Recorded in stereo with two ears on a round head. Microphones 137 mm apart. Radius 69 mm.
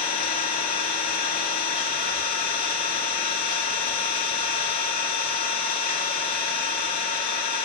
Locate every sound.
0.0 s an engine running: 50° left (ahead or behind), 2 m